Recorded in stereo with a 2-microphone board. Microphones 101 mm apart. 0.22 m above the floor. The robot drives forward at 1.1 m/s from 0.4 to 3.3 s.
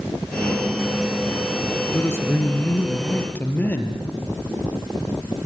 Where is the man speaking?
25° left (ahead or behind), 3.5 m; by 4.0 s 20° left (ahead or behind), 5 m.